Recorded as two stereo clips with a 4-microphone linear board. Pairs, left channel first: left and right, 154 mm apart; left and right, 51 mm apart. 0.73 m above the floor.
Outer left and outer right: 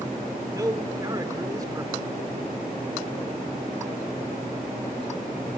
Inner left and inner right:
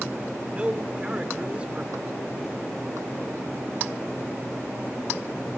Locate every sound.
0.5 s a man speaking: 25° right (ahead or behind), 2 m